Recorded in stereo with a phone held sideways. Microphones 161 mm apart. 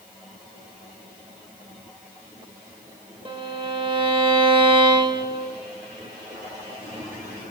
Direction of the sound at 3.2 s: 35° right (ahead or behind).